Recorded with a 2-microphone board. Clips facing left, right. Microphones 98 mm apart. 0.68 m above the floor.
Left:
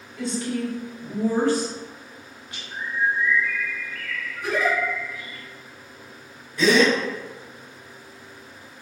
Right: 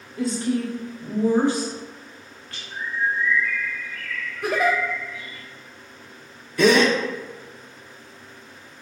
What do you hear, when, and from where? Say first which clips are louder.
0.2 s a woman speaking: right 3 dB; 40° right (ahead or behind), 1.4 m; by 2.6 s 20° left (ahead or behind), 0.9 m
2.7 s a bird: left 1 dB; 60° left (ahead or behind), 1.0 m
4.4 s a giggle: right 2 dB; 60° right (ahead or behind), 0.8 m
6.6 s a gasp: right 1 dB; 60° right (ahead or behind), 0.6 m